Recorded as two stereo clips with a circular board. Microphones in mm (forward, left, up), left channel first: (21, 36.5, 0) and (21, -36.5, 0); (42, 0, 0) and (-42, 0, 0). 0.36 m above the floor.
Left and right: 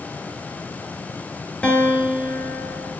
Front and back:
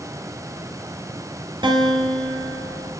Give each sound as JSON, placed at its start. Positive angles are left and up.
{"t": 1.6, "sound": "a guitar", "azimuth_deg": 165, "distance_m": 3.0}